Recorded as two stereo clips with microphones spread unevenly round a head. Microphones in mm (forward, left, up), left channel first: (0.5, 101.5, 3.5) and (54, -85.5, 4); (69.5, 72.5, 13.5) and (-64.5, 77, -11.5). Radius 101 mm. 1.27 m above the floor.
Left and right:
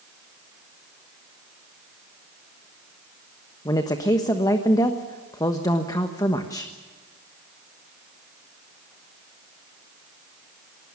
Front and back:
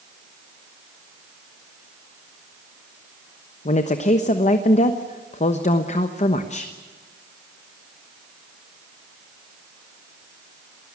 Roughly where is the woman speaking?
Ahead left.